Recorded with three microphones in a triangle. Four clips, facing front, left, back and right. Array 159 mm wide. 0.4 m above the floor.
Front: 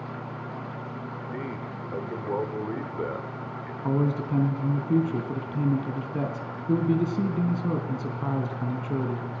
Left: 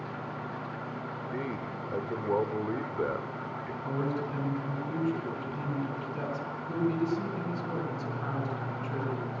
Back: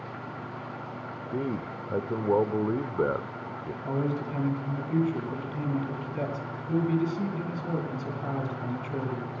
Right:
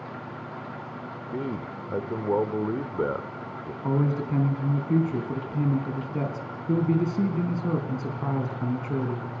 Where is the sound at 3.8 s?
40° right, 3 m.